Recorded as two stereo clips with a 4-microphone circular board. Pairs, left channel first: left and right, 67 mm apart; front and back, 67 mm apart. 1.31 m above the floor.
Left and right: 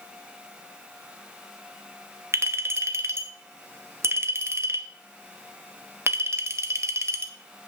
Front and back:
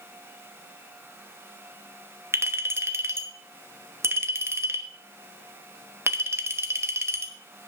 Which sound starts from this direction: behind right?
A clink, at 2.3 s.